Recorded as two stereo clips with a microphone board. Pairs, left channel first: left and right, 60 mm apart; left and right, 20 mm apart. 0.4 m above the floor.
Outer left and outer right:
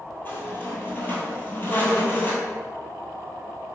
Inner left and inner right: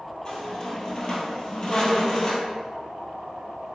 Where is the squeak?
35° left (ahead or behind), 1.3 m.